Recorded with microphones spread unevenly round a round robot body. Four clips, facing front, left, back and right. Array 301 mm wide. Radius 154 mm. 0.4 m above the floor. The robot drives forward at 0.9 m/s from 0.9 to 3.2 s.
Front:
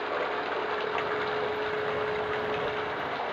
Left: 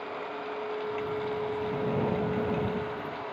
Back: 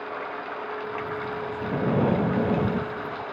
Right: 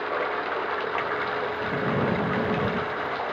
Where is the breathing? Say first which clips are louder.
Right 4 dB, back 5 dB; 160° right; by 3.2 s 165° right.